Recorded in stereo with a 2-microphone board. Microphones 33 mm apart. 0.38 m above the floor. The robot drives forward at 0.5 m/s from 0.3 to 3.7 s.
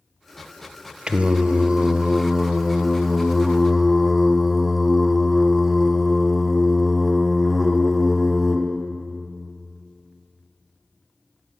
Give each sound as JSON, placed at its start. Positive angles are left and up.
{"t": 1.1, "sound": "singing", "side_deg": -30, "distance_m": 0.5}